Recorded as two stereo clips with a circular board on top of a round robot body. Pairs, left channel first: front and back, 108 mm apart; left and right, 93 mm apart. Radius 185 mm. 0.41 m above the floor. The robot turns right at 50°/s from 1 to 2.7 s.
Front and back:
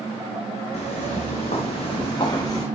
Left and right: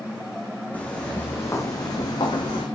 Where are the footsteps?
15° left, 2 m; by 2.7 s 65° left, 2 m.